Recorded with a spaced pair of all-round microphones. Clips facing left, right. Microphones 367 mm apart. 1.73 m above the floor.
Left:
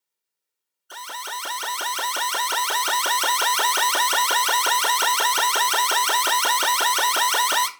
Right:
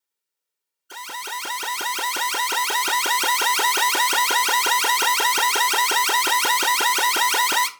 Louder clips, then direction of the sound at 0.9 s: Right 1 dB; 40° right (ahead or behind).